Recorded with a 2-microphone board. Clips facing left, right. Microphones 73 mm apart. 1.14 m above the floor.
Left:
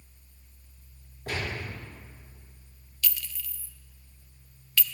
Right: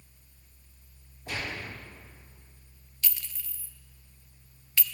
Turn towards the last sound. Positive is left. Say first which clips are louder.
# left 3 dB
turn(degrees=-25)  # may be behind; listen again after turning